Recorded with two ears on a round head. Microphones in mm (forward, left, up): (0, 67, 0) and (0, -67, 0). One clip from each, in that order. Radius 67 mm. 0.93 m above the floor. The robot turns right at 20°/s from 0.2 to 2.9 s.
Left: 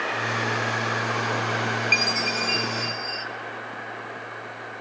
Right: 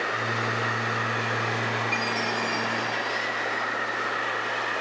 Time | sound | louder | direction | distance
1.9 | a chime | left 4 dB | 55° left (ahead or behind) | 1.0 m